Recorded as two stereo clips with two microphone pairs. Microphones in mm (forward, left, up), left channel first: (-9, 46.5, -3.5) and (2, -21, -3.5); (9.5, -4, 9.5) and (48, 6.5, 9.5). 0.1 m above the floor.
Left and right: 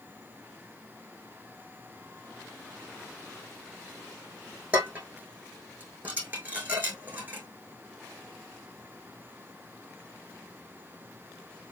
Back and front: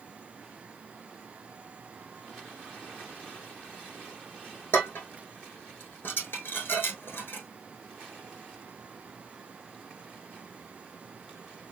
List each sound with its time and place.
4.7 s dishes clattering: 140° right, 3.5 m